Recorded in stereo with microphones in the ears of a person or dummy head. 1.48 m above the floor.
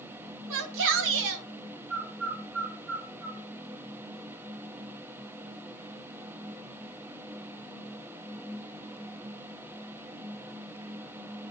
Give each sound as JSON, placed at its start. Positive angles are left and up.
{"t": 0.5, "sound": "a shout", "side_deg": -65, "distance_m": 1.3}
{"t": 1.9, "sound": "a bird", "side_deg": -75, "distance_m": 2.5}